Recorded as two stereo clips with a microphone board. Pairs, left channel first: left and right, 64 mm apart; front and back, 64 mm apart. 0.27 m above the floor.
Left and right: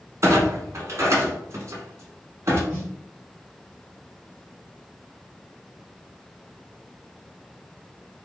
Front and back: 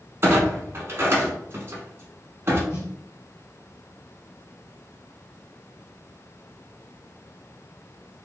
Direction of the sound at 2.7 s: 30° left.